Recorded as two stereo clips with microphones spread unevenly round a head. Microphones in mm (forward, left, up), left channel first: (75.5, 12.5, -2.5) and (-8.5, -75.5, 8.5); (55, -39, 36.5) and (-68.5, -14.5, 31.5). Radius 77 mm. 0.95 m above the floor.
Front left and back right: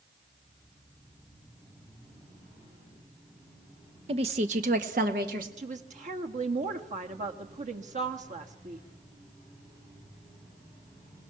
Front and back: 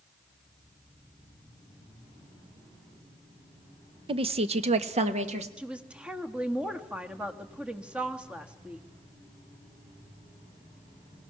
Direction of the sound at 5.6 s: 110° right.